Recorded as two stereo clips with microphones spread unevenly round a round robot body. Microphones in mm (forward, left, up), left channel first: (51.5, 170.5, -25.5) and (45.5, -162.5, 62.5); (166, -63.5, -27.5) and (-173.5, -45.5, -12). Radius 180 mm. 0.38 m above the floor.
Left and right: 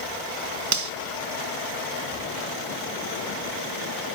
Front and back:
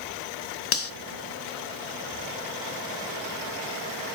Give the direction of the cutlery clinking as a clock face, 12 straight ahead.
2 o'clock.